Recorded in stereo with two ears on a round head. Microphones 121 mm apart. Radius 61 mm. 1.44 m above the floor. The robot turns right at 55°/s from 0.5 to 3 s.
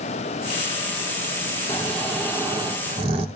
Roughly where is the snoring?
Behind left.